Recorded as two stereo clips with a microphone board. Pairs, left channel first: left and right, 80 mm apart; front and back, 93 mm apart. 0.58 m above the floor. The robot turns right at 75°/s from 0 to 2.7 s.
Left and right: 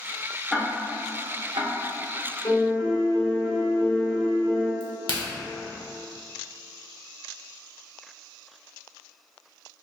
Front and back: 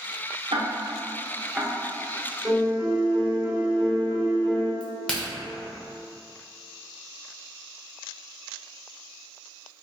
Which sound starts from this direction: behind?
Ticking, at 0.5 s.